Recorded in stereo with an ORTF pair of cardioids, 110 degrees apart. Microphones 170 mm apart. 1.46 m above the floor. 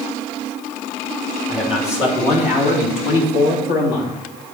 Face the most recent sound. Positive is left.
turn(degrees=65)